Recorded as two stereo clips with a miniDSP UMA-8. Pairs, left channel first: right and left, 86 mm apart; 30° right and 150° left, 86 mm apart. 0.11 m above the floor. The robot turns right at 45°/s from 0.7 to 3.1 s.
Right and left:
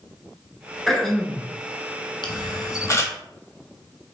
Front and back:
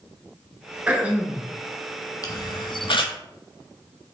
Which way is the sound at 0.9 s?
Straight behind.